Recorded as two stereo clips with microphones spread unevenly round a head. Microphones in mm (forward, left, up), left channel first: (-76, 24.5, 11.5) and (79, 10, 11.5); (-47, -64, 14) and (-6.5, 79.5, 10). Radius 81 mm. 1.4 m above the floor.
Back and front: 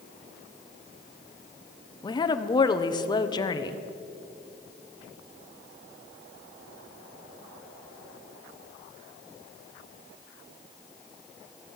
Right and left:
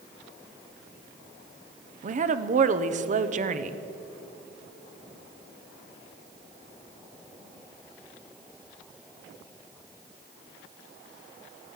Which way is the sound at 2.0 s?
110° left.